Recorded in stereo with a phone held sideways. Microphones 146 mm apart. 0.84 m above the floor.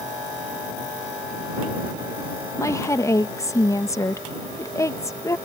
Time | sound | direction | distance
2.6 | a woman speaking | 20° left (ahead or behind) | ?